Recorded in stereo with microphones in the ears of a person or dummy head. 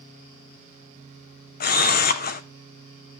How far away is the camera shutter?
About 0.7 m.